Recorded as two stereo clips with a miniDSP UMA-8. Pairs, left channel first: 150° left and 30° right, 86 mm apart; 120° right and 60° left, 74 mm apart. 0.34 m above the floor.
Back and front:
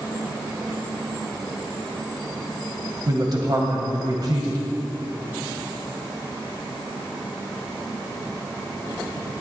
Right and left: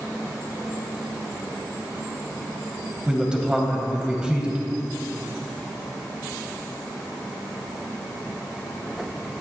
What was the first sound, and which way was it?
A man speaking, 10° right.